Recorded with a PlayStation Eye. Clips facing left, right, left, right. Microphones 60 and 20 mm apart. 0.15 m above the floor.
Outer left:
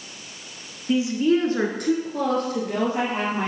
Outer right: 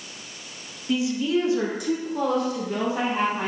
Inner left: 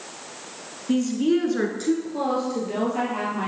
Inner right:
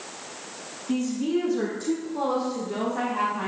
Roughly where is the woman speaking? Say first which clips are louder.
Outer left 3 dB, inner left 4 dB; left.